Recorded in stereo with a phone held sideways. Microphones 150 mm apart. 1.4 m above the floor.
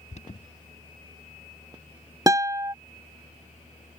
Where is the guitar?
25° right (ahead or behind).